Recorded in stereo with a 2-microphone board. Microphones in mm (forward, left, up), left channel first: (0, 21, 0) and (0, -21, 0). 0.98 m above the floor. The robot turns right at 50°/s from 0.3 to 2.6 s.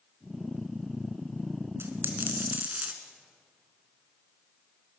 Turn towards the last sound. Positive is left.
turn(degrees=-40)